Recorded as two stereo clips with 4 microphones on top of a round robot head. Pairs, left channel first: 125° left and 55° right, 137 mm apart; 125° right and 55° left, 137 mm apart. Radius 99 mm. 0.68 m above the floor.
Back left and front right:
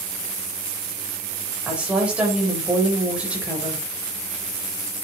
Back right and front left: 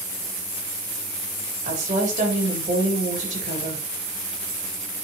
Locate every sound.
1.6 s a woman speaking: 25° left, 4.5 m